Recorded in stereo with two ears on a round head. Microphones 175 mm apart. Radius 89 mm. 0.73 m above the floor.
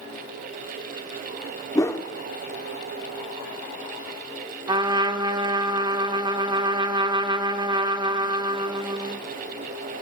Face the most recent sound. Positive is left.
turn(degrees=-25)  # may be behind; listen again after turning